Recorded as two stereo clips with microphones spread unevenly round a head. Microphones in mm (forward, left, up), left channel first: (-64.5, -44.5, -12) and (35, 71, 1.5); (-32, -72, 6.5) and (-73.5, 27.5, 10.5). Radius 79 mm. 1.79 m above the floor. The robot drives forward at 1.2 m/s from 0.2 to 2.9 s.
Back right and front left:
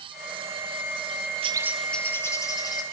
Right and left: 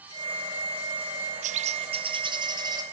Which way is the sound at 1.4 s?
100° left.